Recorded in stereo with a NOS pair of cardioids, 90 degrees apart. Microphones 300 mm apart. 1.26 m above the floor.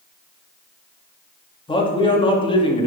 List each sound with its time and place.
1.7 s a man speaking: 15° left, 2.5 m